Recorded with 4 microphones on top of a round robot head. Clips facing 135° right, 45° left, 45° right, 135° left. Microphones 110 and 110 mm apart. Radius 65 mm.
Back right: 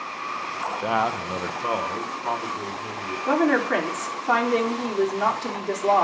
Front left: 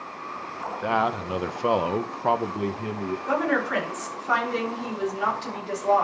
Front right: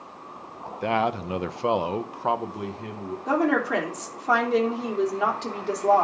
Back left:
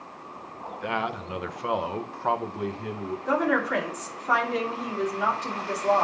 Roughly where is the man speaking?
Ahead right.